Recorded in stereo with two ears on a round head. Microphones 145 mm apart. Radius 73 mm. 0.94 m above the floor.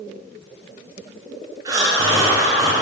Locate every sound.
1.6 s breathing: 20° right (ahead or behind), 2 m